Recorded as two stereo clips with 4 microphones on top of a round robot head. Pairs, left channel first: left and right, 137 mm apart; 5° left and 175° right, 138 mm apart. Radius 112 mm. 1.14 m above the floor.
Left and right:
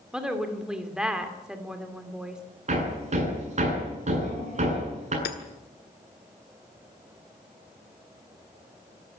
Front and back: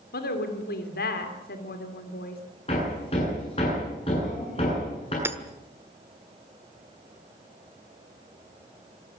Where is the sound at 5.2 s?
115° left, 1.4 m.